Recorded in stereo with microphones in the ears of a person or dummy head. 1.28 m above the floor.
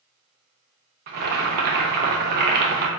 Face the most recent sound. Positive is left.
turn(degrees=-45)  # may be behind; listen again after turning